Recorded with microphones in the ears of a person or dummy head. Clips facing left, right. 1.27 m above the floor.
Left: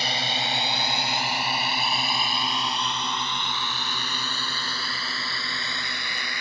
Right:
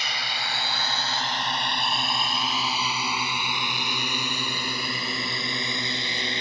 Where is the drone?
30° left (ahead or behind); by 6.4 s 20° right (ahead or behind).